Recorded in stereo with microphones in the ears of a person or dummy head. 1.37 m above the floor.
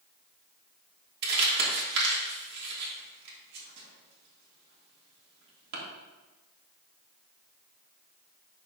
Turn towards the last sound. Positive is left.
turn(degrees=-60)  # may be behind; listen again after turning